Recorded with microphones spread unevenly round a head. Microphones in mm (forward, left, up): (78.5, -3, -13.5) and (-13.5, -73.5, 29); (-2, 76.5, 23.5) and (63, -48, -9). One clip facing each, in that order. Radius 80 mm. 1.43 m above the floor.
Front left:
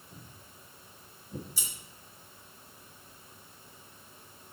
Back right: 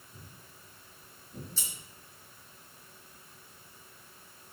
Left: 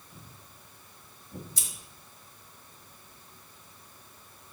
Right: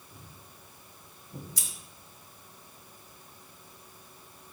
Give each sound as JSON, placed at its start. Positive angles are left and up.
{"t": 0.1, "sound": "footsteps", "azimuth_deg": 20, "distance_m": 4.5}
{"t": 1.6, "sound": "scissors", "azimuth_deg": 140, "distance_m": 1.5}